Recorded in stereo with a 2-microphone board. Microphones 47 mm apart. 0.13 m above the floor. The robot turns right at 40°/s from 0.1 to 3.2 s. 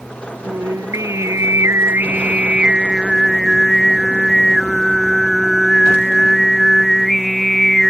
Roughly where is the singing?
Right.